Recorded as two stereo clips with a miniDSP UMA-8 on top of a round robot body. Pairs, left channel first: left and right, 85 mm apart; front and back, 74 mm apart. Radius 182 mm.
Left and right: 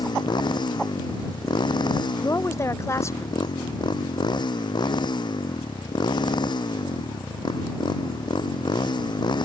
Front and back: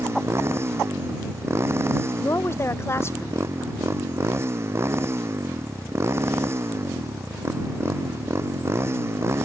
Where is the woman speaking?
45° left.